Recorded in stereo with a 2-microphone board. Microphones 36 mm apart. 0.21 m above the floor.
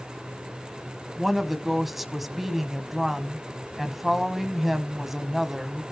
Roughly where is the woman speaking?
Centre.